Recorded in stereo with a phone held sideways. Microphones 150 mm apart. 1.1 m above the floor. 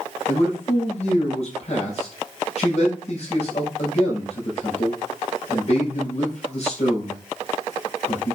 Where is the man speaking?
50° left (ahead or behind), 6 m.